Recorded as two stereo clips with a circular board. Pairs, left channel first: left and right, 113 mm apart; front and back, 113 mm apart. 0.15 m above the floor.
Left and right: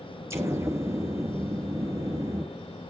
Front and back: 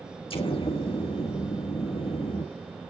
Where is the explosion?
30° right, 2 m.